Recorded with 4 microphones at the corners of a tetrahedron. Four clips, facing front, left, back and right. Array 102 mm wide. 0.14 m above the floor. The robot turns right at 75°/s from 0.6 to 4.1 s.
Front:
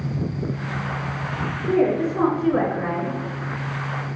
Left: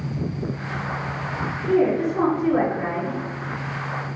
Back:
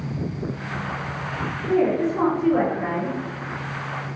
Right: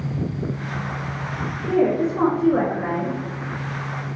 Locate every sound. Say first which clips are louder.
1.7 s a woman speaking: even, even; 105° right, 1.3 m; by 3.2 s 5° left, 1.3 m